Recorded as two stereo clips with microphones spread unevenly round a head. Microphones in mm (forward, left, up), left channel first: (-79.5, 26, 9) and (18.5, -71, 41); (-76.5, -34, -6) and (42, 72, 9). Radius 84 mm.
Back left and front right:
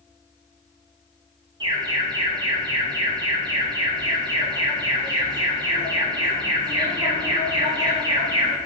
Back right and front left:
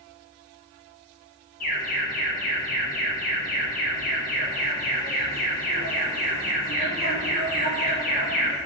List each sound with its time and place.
1.6 s an alarm: 110° right, 1.8 m